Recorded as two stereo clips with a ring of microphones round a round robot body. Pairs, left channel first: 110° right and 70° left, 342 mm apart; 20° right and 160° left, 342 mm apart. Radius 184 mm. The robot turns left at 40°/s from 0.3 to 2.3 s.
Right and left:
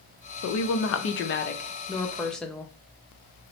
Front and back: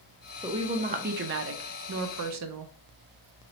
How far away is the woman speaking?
About 0.6 m.